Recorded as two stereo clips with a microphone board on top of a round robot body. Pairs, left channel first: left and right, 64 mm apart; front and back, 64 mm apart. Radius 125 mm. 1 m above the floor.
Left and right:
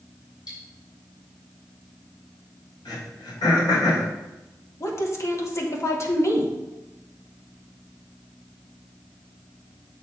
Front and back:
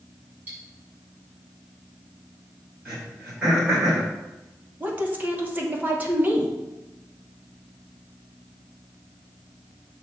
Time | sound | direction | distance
0.5 | cutlery clinking | 115° left | 3.5 m
2.9 | throat clearing | 110° left | 2.5 m
4.8 | a woman speaking | 120° left | 1.5 m